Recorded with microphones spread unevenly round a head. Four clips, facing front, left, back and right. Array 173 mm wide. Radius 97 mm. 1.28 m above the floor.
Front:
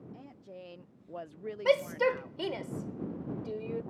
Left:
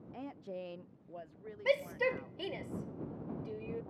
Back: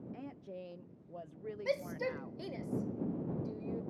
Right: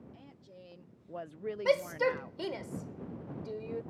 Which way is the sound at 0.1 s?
110° left.